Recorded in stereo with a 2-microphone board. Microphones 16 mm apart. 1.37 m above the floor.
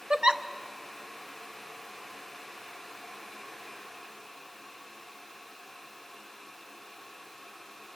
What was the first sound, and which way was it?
A giggle, 75° right (ahead or behind).